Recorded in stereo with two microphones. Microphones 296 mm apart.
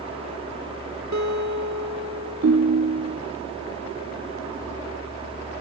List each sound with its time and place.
1.1 s a guitar: 70° right (ahead or behind), 1.7 m
2.4 s a ringtone: 60° right (ahead or behind), 0.7 m